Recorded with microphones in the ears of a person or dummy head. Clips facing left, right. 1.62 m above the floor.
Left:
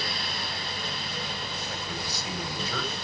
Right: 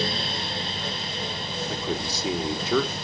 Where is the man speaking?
60° right (ahead or behind), 4 m.